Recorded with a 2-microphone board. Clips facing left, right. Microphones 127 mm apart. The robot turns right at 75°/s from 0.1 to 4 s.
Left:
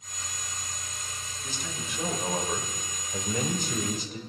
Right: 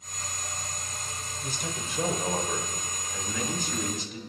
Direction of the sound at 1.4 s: 80° right.